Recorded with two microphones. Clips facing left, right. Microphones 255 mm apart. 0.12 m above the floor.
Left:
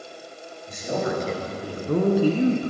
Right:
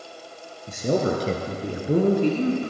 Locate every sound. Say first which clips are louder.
0.7 s a man speaking: right 4 dB; 55° right (ahead or behind), 3 m; by 2.7 s 30° left (ahead or behind), 1.9 m